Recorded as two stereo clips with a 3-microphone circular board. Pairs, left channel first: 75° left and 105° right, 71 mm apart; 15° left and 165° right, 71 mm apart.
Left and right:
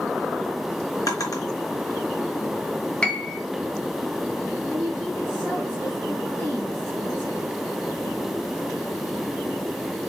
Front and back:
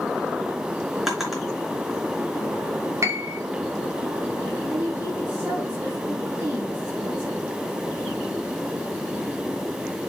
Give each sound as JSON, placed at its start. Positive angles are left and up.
{"t": 1.1, "sound": "a drawer", "azimuth_deg": 110, "distance_m": 3.0}
{"t": 3.0, "sound": "a piano", "azimuth_deg": 150, "distance_m": 1.3}
{"t": 4.7, "sound": "a woman speaking", "azimuth_deg": 130, "distance_m": 3.5}